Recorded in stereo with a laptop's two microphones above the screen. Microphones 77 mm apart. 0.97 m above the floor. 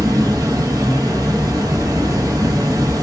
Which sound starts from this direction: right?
An insect, at 0.0 s.